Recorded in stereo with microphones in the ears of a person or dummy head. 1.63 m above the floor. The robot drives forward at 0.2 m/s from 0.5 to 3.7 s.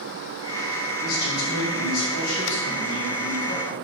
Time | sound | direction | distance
1.0 | a man speaking | 85° left | 1.0 m